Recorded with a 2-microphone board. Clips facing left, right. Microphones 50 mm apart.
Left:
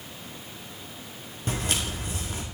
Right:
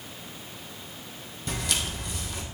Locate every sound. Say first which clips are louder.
1.5 s footsteps: left 1 dB; 35° left (ahead or behind), 2.5 m